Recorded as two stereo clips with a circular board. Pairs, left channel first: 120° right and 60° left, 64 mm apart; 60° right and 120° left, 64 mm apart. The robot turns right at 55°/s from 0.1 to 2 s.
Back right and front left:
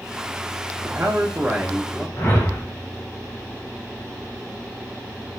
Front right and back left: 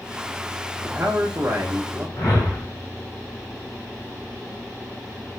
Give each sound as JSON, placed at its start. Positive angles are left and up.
{"t": 0.8, "sound": "a man speaking", "azimuth_deg": 90, "distance_m": 0.8}
{"t": 2.2, "sound": "a whoosh", "azimuth_deg": -80, "distance_m": 2.5}